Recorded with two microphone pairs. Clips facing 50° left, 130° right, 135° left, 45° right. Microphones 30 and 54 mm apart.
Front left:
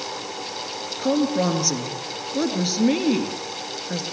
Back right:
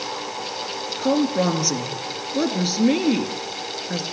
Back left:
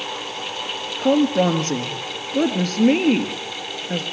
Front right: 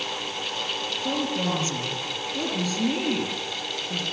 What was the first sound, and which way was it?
A woman speaking, 145° left.